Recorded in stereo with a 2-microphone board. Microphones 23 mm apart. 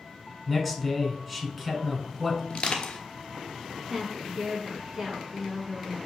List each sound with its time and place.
0.5 s a man speaking: 5° right (ahead or behind), 1.4 m
2.5 s crushing: 50° left (ahead or behind), 0.9 m
3.9 s a woman speaking: 20° right (ahead or behind), 2.0 m